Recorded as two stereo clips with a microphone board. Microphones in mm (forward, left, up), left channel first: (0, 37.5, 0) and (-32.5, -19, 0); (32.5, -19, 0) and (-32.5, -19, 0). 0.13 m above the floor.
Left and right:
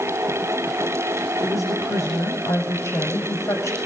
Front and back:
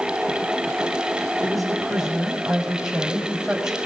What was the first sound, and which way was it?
A woman speaking, 90° left.